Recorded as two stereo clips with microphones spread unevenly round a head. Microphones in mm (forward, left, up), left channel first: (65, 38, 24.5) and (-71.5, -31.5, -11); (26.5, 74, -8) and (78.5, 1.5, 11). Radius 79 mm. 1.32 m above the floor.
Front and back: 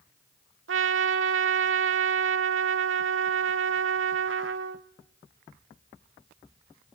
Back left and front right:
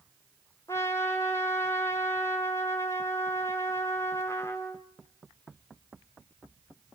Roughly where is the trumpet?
Behind.